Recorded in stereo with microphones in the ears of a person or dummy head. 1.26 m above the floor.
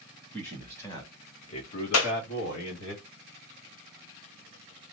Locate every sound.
0.3 s a man speaking: 10° left (ahead or behind), 1.3 m; by 2.9 s 75° left (ahead or behind), 1.5 m
1.9 s a clap: 70° left (ahead or behind), 0.7 m